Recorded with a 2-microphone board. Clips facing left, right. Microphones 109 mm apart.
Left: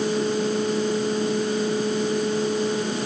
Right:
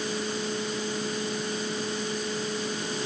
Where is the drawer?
I don't hear a drawer.